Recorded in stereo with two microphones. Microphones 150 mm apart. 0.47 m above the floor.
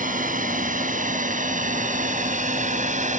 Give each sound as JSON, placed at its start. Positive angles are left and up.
{"t": 0.0, "sound": "a drone", "side_deg": -70}